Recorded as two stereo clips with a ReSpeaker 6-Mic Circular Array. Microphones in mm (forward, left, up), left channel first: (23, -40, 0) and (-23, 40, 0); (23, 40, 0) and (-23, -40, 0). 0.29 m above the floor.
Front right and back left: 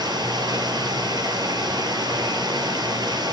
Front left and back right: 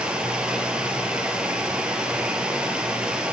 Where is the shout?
No shout in this recording.